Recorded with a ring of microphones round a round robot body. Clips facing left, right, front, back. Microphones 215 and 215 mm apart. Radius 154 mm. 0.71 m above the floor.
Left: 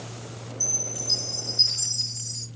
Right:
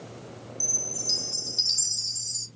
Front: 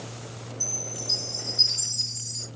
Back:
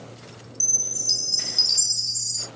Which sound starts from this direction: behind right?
A chime, at 0.6 s.